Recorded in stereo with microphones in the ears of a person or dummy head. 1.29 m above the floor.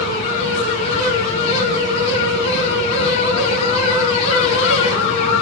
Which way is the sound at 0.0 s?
40° left (ahead or behind).